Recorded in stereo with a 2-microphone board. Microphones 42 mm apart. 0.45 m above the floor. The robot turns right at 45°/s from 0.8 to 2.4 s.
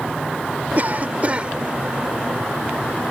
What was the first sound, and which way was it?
A cough, 75° right.